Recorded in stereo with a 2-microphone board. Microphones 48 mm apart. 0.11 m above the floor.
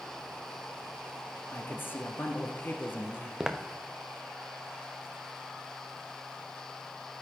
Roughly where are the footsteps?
Centre.